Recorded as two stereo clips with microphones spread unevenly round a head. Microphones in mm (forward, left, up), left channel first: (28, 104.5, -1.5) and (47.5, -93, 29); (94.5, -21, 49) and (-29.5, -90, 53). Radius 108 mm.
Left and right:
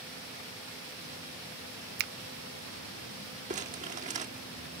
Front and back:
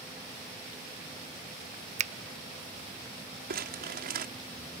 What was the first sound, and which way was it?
A finger snap, 125° right.